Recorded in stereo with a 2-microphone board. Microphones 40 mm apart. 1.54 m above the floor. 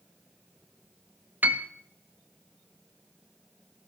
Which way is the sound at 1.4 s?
45° right (ahead or behind).